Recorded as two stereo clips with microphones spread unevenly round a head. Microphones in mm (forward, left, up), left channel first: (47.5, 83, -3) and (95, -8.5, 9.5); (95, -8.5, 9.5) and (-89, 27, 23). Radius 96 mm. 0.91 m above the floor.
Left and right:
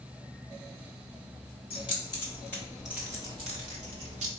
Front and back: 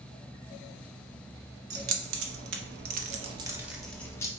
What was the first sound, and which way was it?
Keys jangling, 170° left.